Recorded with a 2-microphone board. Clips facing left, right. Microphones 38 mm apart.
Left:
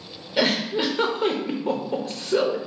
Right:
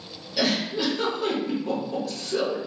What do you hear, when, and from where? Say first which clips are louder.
0.4 s a giggle: left 3 dB; 35° left (ahead or behind), 0.7 m